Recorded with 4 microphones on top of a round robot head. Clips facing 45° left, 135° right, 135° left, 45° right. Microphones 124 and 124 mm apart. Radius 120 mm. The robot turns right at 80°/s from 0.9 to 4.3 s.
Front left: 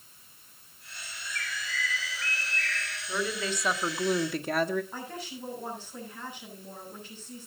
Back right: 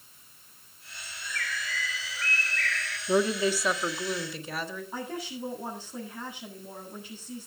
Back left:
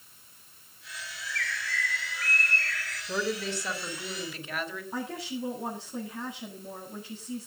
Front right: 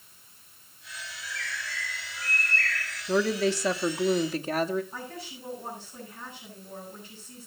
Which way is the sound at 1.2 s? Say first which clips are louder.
Back right 2 dB, back left 2 dB; 95° left.